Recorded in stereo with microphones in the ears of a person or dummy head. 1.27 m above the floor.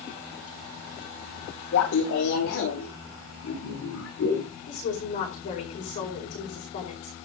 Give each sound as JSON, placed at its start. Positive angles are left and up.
{"t": 1.7, "sound": "laughter", "side_deg": 65, "distance_m": 1.7}
{"t": 4.7, "sound": "a woman speaking", "side_deg": 40, "distance_m": 5.5}